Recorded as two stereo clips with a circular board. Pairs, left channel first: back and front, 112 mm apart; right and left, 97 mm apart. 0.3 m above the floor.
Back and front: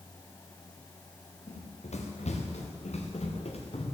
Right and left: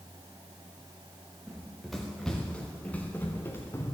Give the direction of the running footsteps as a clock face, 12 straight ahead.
6 o'clock.